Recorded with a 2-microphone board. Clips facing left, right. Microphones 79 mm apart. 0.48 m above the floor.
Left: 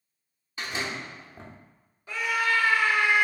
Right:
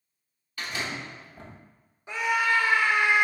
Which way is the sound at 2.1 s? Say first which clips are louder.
Right 2 dB; 20° right (ahead or behind).